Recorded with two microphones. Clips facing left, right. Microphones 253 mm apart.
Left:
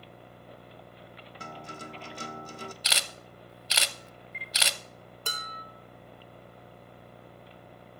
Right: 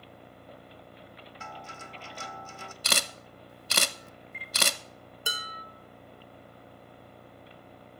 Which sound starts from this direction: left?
A guitar, at 1.4 s.